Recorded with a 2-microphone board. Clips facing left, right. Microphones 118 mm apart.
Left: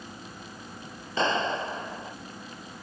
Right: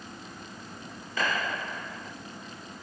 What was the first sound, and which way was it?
A clap, 25° left (ahead or behind).